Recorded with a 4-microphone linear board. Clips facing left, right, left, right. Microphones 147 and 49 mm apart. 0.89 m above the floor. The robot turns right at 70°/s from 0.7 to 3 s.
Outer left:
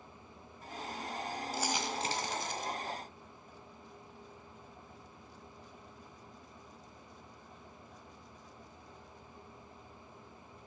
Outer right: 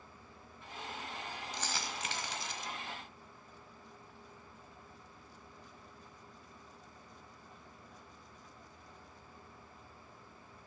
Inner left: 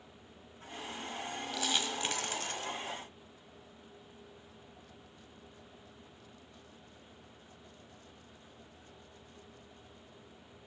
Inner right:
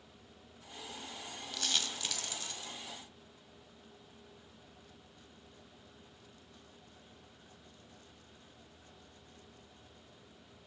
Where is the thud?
No thud in this recording.